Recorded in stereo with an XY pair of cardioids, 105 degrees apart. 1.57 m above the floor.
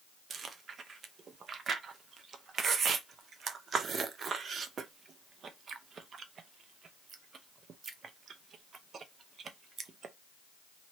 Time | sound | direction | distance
0.3 | chewing | 50° right | 0.7 m